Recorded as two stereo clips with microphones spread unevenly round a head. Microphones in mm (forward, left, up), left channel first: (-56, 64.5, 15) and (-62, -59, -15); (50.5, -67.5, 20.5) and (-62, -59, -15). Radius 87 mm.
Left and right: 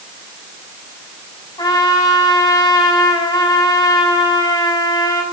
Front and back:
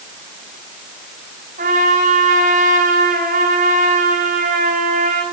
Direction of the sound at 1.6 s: 145° left.